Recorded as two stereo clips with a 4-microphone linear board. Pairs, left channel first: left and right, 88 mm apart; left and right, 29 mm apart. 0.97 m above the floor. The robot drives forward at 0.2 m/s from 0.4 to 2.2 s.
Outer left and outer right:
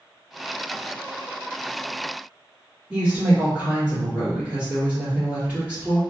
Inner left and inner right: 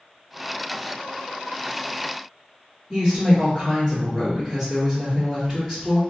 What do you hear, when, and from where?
2.9 s a woman speaking: 10° right (ahead or behind), 1.7 m